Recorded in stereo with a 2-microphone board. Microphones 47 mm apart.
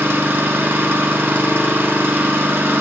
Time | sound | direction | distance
0.0 | an engine running | 50° right (ahead or behind) | 0.8 m